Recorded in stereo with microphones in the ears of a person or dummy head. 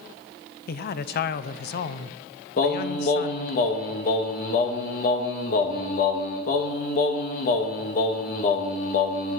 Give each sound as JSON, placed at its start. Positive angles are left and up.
{"t": 0.7, "sound": "a man speaking", "side_deg": 50, "distance_m": 0.8}
{"t": 2.6, "sound": "singing", "side_deg": 40, "distance_m": 1.3}